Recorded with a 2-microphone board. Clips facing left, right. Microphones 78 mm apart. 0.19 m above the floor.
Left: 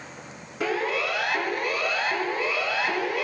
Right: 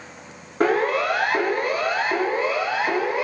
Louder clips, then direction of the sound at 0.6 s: Right 7 dB; 45° right (ahead or behind).